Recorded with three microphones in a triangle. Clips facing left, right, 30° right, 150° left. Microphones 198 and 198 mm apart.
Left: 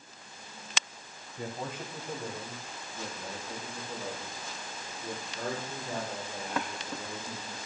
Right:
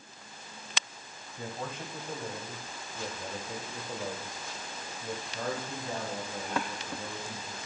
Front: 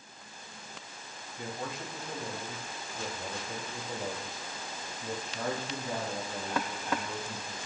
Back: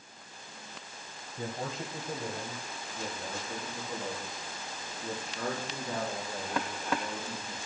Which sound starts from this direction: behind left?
A man speaking, at 1.4 s.